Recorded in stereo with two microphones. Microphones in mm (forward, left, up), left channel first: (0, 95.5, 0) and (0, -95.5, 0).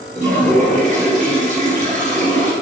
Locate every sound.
0.1 s a toilet flushing: 35° right (ahead or behind), 1.5 m